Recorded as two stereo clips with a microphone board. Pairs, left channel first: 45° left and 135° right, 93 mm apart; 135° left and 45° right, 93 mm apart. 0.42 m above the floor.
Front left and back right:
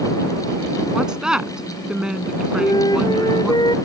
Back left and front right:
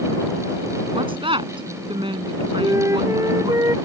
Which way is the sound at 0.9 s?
55° right.